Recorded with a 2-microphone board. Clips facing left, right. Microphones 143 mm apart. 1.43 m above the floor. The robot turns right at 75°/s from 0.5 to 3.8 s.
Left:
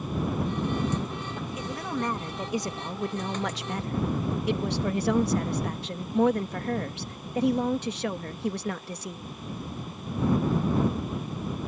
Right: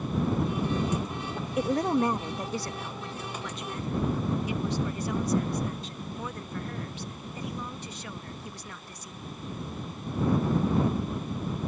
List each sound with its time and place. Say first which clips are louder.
1.6 s a woman speaking: right 8 dB; 60° right; by 9.2 s 110° left